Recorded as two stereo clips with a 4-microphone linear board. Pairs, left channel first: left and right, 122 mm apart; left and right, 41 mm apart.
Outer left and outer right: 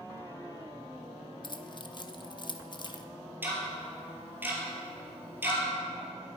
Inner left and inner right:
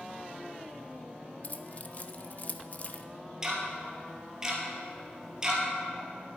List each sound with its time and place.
1.4 s keys jangling: 40° left (ahead or behind), 0.6 m
3.4 s ticking: 15° right (ahead or behind), 3 m